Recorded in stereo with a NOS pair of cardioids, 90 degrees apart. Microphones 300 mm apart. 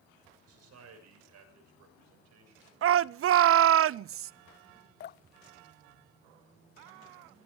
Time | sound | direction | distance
0.5 | a man speaking | 60° right | 6.5 m
2.8 | a shout | 50° right | 0.6 m
5.0 | dripping | 40° left | 0.5 m